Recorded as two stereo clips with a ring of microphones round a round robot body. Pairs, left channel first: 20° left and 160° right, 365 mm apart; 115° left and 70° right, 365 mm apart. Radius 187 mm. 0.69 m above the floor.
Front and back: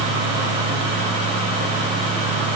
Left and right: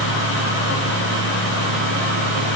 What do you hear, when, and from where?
Only background noise.